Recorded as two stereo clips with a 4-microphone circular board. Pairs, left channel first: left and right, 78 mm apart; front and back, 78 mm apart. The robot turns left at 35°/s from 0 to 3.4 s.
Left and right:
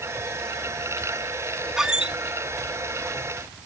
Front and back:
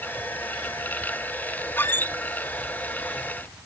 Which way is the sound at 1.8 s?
15° right.